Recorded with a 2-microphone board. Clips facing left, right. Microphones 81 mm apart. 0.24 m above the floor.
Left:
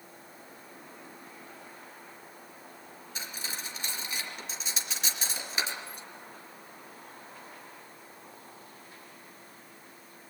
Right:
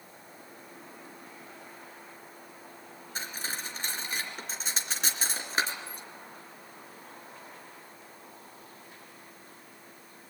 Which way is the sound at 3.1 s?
40° right (ahead or behind).